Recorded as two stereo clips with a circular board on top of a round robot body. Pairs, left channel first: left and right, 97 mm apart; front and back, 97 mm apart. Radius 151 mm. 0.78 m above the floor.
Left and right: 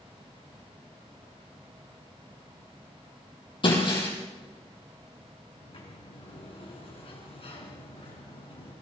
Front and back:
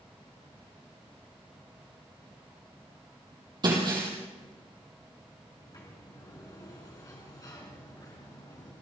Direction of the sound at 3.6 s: 130° left.